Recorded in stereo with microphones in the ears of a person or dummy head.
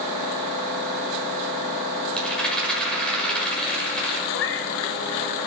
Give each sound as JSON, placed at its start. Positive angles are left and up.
{"t": 2.2, "sound": "a rattle", "side_deg": 5, "distance_m": 7.0}
{"t": 4.3, "sound": "a cat meowing", "side_deg": 65, "distance_m": 3.5}